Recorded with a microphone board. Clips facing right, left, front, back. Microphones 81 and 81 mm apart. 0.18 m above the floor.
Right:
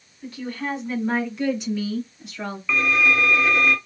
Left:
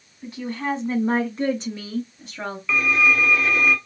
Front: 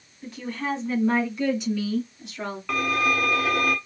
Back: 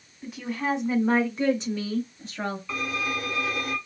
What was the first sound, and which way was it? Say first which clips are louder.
A woman speaking: left 2 dB, back 1 dB; 90° left.